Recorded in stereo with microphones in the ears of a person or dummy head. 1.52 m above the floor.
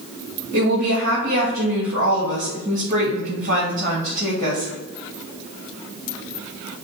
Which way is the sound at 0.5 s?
45° right (ahead or behind).